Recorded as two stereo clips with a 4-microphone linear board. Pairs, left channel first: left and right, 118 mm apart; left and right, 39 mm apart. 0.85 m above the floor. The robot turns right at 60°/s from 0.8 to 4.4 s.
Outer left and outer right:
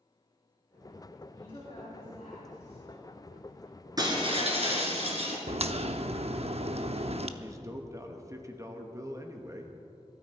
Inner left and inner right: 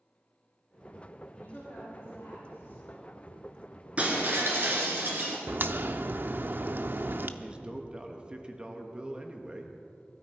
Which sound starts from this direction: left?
A woman speaking, at 1.4 s.